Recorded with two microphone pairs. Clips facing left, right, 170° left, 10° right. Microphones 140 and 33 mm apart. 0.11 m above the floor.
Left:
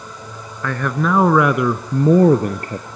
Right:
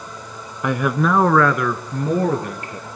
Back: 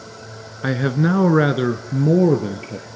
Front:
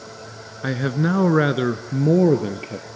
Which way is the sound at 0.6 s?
130° right.